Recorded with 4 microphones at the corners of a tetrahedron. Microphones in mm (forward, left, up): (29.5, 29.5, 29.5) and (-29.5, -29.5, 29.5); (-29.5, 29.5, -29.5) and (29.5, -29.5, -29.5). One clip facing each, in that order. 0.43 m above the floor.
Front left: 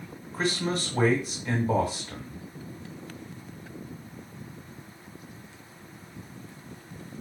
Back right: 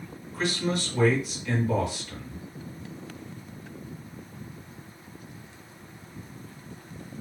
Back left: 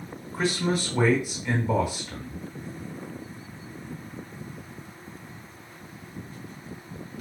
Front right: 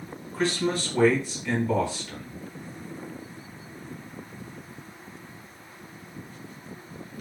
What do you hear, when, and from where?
0.3 s a man speaking: 70° left, 0.9 m